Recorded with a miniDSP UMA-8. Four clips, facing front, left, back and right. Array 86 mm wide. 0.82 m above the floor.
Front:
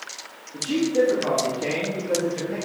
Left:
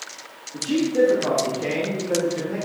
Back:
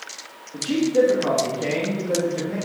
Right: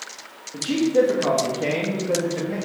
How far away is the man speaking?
About 1.1 m.